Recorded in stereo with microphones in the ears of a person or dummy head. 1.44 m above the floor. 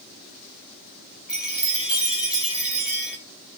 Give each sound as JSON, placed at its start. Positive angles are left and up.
{"t": 1.3, "sound": "a chime", "side_deg": -5, "distance_m": 0.6}